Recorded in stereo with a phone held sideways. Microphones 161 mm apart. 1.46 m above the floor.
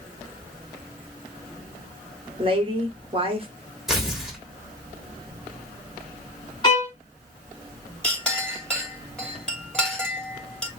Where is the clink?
5° left (ahead or behind), 2.5 m.